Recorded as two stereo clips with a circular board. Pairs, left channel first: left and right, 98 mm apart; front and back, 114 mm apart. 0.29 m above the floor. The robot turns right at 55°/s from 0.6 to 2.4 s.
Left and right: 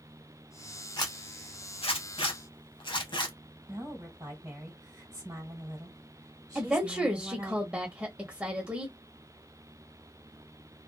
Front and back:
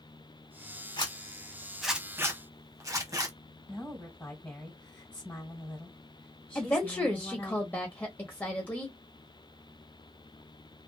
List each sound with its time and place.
1.0 s a zipper: 45° left, 0.7 m; by 3.4 s 125° left, 0.7 m
3.7 s a woman speaking: 65° right, 1.6 m
6.5 s a woman speaking: 40° right, 0.9 m